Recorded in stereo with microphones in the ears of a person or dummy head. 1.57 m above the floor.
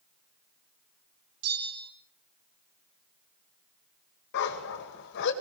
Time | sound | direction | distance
1.4 | a bell | 80° right | 4 m
4.3 | a dog barking | 60° left (ahead or behind) | 3 m